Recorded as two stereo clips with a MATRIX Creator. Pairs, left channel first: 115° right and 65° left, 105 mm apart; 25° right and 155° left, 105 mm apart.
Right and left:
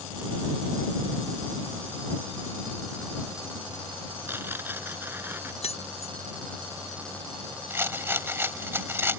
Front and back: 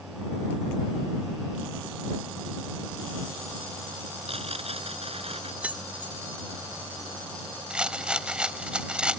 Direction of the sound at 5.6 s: 125° right.